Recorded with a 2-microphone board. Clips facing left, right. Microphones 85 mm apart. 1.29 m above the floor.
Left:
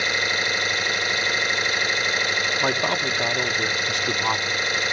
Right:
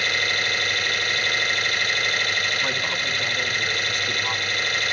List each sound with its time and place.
0.0 s an engine running: 20° left (ahead or behind), 1.2 m
2.6 s a man speaking: 75° left (ahead or behind), 1.7 m